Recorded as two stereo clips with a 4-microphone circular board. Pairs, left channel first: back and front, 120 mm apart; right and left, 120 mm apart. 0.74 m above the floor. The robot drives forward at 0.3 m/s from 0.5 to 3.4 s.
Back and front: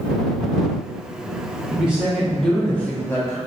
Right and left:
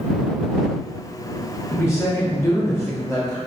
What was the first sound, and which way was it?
A woman speaking, 65° right.